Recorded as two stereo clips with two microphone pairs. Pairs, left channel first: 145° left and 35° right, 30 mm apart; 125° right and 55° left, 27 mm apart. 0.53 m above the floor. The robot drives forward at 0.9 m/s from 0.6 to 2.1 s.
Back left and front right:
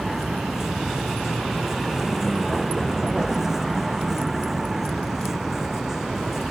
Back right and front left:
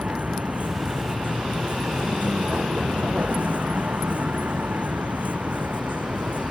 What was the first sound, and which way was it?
A vehicle, 40° left.